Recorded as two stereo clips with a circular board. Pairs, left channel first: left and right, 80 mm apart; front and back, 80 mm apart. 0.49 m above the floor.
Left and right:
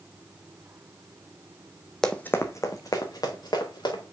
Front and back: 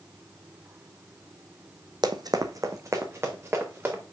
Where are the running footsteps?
175° left, 0.9 m; by 4.0 s 115° left, 3 m.